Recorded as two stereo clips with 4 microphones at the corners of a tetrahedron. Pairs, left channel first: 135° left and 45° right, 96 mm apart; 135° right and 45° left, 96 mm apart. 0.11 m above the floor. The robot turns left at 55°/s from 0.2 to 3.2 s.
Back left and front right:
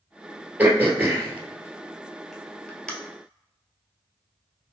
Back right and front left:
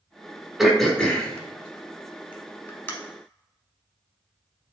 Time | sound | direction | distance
0.6 | throat clearing | 35° right | 1.1 m